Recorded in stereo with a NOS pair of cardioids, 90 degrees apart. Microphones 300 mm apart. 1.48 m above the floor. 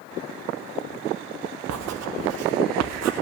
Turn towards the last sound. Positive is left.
turn(degrees=-55)